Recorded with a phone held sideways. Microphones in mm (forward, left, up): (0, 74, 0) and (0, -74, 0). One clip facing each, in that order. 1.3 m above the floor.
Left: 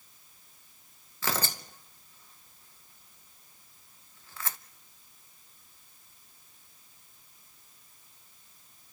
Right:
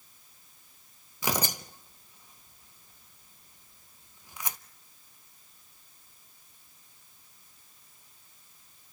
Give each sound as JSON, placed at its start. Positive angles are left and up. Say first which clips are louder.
{"t": 1.2, "sound": "tearing paper", "louder": "right 2 dB", "side_deg": -15, "distance_m": 0.8}